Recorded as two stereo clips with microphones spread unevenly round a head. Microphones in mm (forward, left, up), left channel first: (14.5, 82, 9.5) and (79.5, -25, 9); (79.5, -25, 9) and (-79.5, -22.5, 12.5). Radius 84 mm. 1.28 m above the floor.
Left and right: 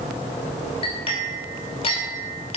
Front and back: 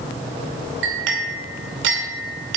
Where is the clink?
Straight behind, 2.5 m.